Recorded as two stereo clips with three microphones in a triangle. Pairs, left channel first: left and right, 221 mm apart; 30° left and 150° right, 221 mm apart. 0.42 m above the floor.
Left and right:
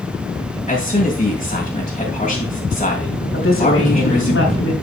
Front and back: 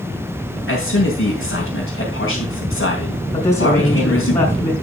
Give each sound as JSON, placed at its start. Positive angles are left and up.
{"t": 0.7, "sound": "a man speaking", "azimuth_deg": 30, "distance_m": 2.5}
{"t": 3.3, "sound": "a woman speaking", "azimuth_deg": 90, "distance_m": 3.5}